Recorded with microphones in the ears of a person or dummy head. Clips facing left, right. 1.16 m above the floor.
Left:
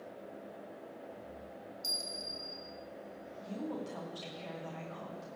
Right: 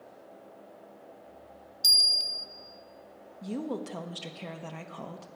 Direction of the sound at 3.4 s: 60° right (ahead or behind).